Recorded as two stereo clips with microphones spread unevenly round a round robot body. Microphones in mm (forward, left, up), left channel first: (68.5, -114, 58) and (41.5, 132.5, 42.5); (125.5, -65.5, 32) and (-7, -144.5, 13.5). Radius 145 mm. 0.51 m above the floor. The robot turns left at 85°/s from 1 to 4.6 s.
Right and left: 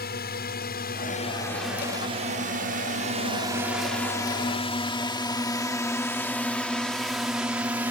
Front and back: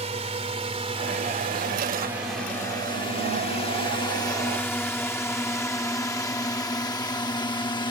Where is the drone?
125° right; by 7.9 s 35° left.